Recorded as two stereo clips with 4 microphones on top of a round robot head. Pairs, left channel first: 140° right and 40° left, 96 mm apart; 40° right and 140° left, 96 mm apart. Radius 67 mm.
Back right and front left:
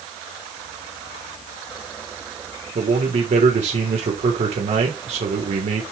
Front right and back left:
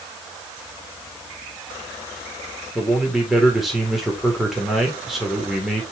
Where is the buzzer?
No buzzer in this recording.